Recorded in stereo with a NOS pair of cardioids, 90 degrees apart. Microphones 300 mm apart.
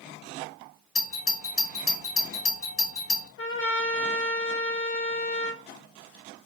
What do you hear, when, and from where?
0.9 s a doorbell: 55° left, 1.9 m
3.4 s a trumpet: 45° left, 1.3 m